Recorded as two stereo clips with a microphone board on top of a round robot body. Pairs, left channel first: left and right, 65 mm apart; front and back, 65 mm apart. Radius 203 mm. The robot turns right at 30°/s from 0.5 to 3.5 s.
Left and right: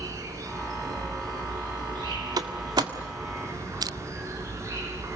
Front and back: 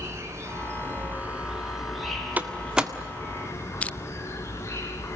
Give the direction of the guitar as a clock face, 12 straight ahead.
No guitar in this recording.